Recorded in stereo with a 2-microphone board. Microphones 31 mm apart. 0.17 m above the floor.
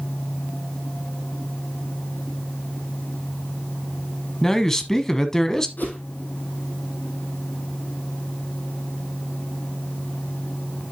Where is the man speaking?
20° left (ahead or behind), 1.1 m.